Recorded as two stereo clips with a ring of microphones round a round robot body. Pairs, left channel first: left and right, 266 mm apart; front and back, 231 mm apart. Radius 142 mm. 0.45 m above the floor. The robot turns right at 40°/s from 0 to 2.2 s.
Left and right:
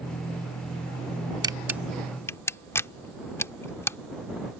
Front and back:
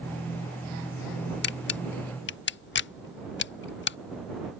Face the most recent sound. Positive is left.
turn(degrees=10)